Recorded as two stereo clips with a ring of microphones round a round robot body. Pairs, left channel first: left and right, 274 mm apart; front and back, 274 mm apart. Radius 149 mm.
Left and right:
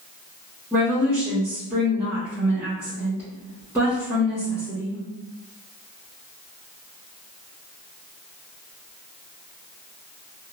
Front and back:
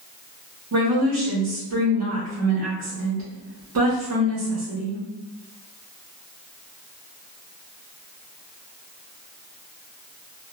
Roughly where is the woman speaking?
Behind.